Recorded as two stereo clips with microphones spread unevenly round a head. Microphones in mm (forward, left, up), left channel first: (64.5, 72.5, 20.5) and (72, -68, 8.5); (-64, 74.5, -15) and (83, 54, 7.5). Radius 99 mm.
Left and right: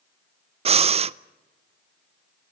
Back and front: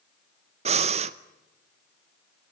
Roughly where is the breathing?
Ahead right.